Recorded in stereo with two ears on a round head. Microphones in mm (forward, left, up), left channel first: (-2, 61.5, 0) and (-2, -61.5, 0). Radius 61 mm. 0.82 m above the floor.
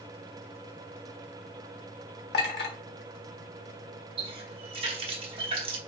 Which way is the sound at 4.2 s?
40° right (ahead or behind).